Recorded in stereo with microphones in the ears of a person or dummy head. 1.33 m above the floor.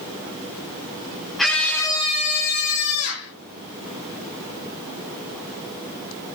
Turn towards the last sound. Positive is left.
turn(degrees=75)  # may be behind; listen again after turning